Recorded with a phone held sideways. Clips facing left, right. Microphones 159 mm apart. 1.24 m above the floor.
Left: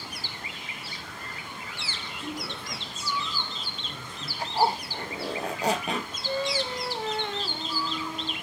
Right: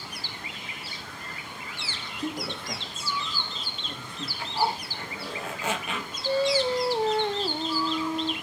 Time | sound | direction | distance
2.2 | a woman speaking | 40° right (ahead or behind) | 1.9 m
4.4 | a zipper | 40° left (ahead or behind) | 1.1 m
6.2 | singing | 35° right (ahead or behind) | 0.7 m